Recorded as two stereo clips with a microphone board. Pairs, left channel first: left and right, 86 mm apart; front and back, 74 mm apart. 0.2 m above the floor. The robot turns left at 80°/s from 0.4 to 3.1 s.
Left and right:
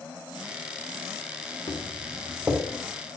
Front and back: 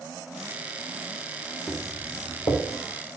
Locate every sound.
1.7 s footsteps: 65° left, 4 m; by 2.6 s 10° right, 4 m